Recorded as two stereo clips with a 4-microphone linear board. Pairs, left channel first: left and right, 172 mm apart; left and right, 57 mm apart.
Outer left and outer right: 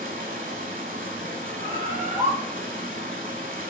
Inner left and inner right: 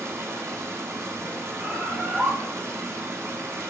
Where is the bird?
40° right (ahead or behind), 0.8 m.